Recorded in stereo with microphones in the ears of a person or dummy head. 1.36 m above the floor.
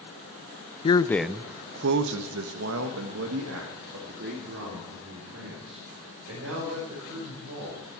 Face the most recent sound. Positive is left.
turn(degrees=-75)  # may be behind; listen again after turning